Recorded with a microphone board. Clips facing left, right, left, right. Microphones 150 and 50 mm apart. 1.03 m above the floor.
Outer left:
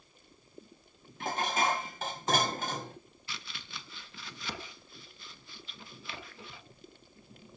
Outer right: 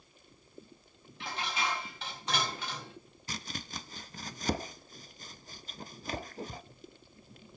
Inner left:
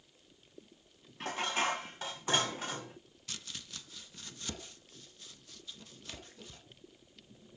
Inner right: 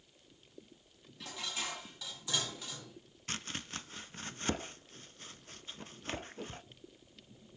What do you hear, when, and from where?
1.2 s dishes clattering: 45° left (ahead or behind), 1.1 m
3.3 s chopping: 40° right (ahead or behind), 0.5 m